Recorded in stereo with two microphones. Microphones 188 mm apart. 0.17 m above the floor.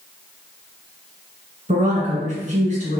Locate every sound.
1.7 s a woman speaking: 45° right (ahead or behind), 1.8 m